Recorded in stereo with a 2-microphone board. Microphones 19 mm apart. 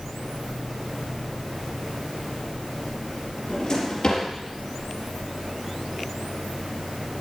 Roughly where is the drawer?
Left.